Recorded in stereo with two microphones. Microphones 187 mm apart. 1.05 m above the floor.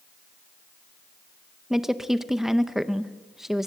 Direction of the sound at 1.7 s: Centre (ahead or behind).